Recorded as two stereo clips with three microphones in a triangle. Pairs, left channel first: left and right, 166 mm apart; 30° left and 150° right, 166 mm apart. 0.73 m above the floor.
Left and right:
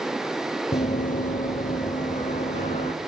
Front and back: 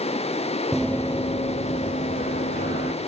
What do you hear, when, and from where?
0.7 s running footsteps: 125° left, 1.0 m; by 2.9 s 45° left, 3 m